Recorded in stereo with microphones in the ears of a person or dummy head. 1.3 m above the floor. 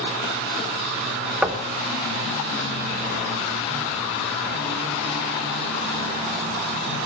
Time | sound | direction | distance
1.4 | knocking | 5° right (ahead or behind) | 1.0 m